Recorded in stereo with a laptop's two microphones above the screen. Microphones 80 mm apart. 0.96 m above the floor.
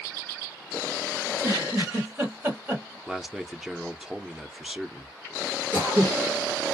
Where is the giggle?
20° right (ahead or behind), 1.7 m.